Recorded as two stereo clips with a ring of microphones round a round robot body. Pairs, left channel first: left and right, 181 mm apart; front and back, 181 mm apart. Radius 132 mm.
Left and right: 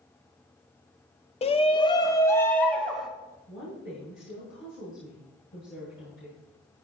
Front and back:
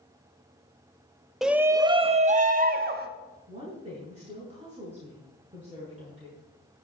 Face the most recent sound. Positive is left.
turn(degrees=125)